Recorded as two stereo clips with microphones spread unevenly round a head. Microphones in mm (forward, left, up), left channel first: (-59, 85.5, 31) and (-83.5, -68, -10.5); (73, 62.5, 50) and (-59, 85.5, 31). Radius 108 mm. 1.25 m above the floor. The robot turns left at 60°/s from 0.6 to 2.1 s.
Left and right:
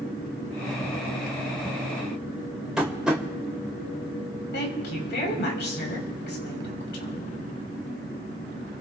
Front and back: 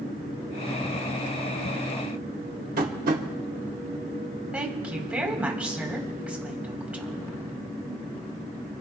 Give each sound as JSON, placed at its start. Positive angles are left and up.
{"t": 2.8, "sound": "tapping", "azimuth_deg": 170, "distance_m": 2.0}
{"t": 4.5, "sound": "a woman speaking", "azimuth_deg": 90, "distance_m": 4.5}